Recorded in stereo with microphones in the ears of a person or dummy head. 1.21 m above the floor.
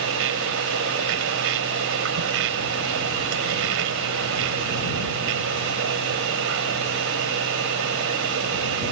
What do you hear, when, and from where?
0.0 s a machine running: 65° right (ahead or behind)